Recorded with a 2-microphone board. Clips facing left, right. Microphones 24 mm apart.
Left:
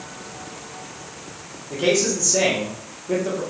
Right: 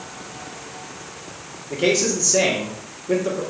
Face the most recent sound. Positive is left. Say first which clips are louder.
# even
turn(degrees=-15)  # may be behind; listen again after turning